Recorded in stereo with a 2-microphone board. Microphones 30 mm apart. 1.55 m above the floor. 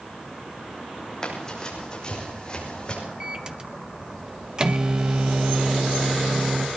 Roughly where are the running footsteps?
Left.